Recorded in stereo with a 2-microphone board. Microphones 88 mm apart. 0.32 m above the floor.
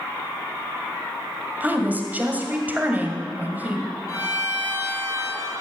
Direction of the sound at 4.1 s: 45° left (ahead or behind).